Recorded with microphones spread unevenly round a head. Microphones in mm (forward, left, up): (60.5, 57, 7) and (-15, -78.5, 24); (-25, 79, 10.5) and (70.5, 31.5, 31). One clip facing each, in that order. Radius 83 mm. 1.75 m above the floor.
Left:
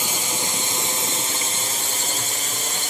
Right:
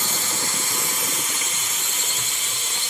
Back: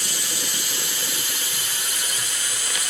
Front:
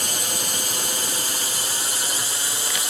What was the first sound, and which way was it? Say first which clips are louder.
A drone: left 2 dB, front 3 dB; 5° right.